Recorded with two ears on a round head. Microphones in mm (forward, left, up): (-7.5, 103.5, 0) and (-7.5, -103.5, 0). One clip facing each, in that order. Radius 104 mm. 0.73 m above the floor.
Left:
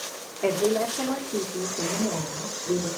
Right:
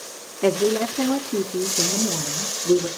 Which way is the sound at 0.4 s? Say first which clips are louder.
Right 4 dB; 55° right (ahead or behind).